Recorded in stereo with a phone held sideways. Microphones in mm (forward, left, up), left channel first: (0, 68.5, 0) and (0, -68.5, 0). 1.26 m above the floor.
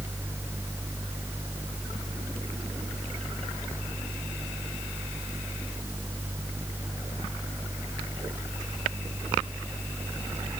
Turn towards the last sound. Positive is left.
turn(degrees=-15)  # may be behind; listen again after turning